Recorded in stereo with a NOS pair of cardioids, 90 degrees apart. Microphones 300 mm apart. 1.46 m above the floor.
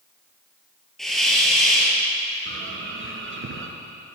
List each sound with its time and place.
1.0 s a hiss: straight ahead, 8.5 m
2.5 s a bird: 45° right, 4 m